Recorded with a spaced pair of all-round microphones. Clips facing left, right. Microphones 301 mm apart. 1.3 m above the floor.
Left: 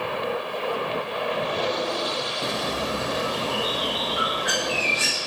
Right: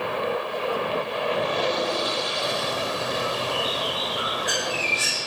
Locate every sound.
2.4 s a bird: 70° left (ahead or behind), 1.7 m